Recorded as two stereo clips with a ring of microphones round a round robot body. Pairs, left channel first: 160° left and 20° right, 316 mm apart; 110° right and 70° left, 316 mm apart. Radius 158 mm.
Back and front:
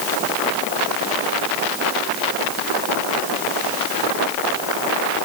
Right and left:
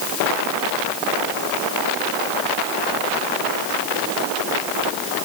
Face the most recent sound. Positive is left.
No sound to turn to.